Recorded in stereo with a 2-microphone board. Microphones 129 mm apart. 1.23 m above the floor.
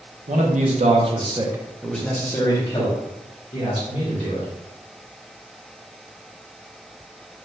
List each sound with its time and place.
0.3 s a man speaking: 75° right (ahead or behind), 0.8 m; by 4.5 s 50° left (ahead or behind), 1.6 m